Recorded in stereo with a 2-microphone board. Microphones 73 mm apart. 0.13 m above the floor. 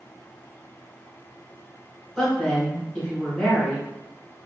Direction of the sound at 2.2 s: 5° left (ahead or behind).